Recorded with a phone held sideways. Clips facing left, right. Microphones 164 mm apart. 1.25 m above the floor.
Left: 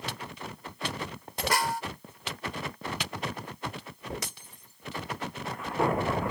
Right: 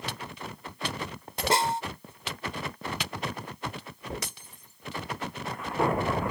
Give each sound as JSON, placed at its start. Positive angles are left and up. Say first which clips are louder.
{"t": 1.5, "sound": "a snare drum", "louder": "right 3 dB", "side_deg": -25}